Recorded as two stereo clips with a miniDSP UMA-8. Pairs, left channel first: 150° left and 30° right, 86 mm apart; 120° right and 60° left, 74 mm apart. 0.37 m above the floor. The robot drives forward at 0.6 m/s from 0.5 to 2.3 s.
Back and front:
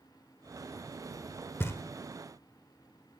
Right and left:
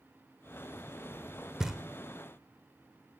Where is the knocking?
135° left, 0.7 m; by 1.8 s 150° left, 0.7 m.